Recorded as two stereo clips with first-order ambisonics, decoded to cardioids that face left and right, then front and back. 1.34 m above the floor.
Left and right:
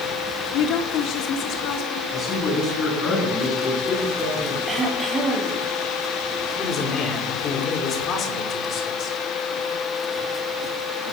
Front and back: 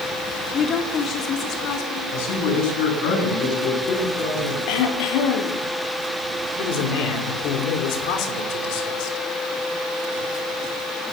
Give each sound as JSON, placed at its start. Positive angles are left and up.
{"t": 0.5, "sound": "a woman speaking", "azimuth_deg": 60, "distance_m": 3.5}
{"t": 2.1, "sound": "a man speaking", "azimuth_deg": 25, "distance_m": 10.0}
{"t": 4.7, "sound": "throat clearing", "azimuth_deg": -10, "distance_m": 5.5}
{"t": 6.6, "sound": "a man speaking", "azimuth_deg": 30, "distance_m": 5.0}